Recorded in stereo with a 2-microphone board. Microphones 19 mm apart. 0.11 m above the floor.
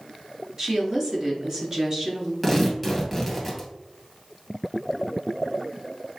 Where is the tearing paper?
5° left (ahead or behind), 2 m.